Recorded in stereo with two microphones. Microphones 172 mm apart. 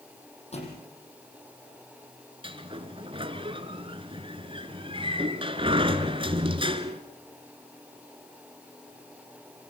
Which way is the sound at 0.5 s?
40° left (ahead or behind).